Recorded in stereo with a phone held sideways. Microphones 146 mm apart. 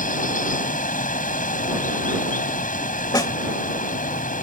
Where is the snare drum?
25° left (ahead or behind).